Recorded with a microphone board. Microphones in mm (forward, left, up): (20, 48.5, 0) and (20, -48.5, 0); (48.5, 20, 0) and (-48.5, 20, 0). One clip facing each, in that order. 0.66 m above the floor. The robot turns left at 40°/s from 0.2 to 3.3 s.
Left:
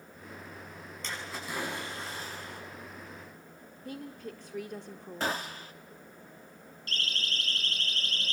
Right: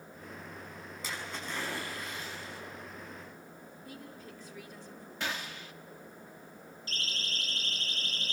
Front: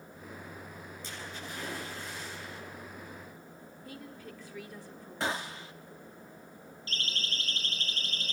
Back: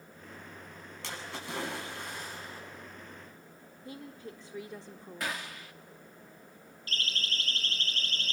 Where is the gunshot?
50° left, 0.9 m.